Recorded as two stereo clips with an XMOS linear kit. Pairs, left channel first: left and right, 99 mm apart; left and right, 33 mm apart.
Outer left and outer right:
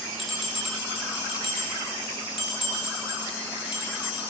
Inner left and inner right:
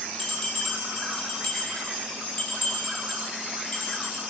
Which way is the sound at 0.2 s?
Centre (ahead or behind).